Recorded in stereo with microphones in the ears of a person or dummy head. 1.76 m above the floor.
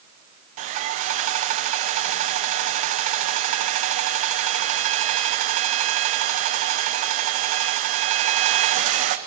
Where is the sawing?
50° right (ahead or behind), 1.0 m.